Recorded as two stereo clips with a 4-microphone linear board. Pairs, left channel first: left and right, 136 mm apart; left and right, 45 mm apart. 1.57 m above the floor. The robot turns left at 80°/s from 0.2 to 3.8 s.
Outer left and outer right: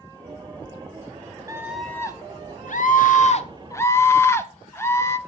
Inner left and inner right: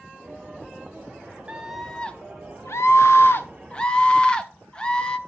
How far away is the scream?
About 0.9 m.